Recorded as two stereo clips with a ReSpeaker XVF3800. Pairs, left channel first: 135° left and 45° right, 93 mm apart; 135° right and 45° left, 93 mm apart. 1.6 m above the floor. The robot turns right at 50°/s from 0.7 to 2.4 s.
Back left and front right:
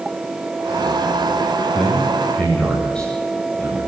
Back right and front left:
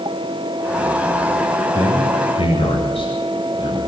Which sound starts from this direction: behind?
A man speaking, at 1.7 s.